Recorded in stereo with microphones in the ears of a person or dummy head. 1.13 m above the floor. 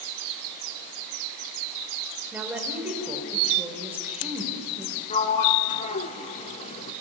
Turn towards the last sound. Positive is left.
turn(degrees=35)  # may be behind; listen again after turning